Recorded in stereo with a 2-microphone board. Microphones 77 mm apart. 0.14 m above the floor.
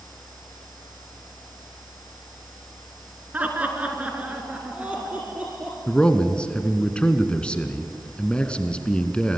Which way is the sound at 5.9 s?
15° left (ahead or behind).